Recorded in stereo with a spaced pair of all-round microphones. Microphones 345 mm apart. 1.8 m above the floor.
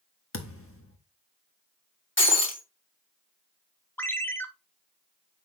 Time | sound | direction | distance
0.3 | a thud | 40° left (ahead or behind) | 1.4 m
2.2 | breaking glass | 35° left (ahead or behind) | 2.5 m
4.0 | a ringtone | 5° left (ahead or behind) | 1.0 m